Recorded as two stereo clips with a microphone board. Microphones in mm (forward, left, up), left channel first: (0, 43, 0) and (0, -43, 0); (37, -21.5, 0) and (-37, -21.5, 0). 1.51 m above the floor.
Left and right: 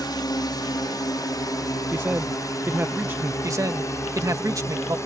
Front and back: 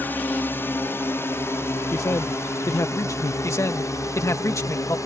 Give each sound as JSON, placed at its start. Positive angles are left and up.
{"t": 0.0, "sound": "a drone", "azimuth_deg": 60}
{"t": 1.9, "sound": "a man speaking", "azimuth_deg": -35}
{"t": 3.4, "sound": "a man speaking", "azimuth_deg": -45}